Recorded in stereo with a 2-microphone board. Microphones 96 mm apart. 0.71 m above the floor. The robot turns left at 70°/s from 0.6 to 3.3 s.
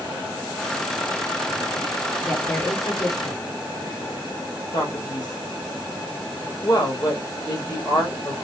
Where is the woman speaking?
175° right, 2.0 m; by 3.4 s 110° left, 2.0 m.